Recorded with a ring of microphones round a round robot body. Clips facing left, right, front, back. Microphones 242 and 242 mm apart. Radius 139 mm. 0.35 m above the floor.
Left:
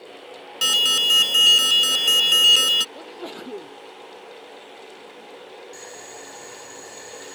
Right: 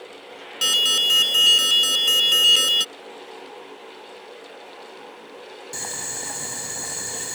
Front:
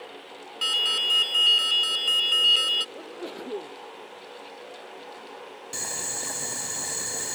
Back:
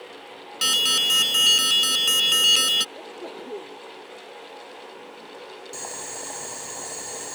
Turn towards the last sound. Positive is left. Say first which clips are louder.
# right 2 dB, back 1 dB
turn(degrees=-65)